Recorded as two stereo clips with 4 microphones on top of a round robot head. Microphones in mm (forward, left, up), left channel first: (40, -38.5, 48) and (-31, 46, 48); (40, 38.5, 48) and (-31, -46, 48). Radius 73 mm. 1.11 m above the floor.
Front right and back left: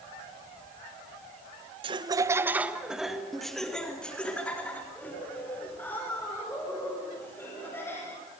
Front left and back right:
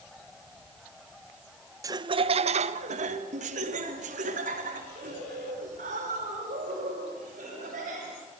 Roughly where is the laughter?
Behind.